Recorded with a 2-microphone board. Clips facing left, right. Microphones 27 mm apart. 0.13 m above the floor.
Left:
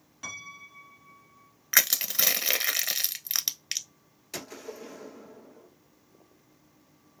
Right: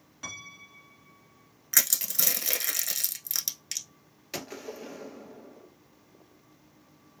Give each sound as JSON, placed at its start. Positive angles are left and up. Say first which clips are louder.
{"t": 0.2, "sound": "a piano", "louder": "left 1 dB", "side_deg": -5, "distance_m": 1.0}
{"t": 1.7, "sound": "crushing", "louder": "left 4 dB", "side_deg": 35, "distance_m": 0.7}
{"t": 4.3, "sound": "a gunshot", "louder": "right 1 dB", "side_deg": -15, "distance_m": 1.4}